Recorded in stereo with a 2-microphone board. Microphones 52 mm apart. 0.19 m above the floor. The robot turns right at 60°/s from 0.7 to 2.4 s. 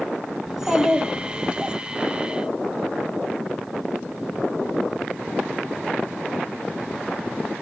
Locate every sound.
0.5 s a child speaking: 10° right (ahead or behind), 1.0 m; by 1.8 s 20° right (ahead or behind), 1.0 m